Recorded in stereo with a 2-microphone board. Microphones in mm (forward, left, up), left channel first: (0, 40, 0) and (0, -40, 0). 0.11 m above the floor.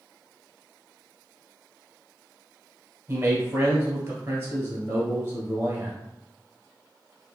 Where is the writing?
No writing in this recording.